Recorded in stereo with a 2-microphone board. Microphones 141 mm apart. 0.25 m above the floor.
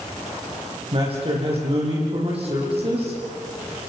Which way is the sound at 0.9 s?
45° right (ahead or behind).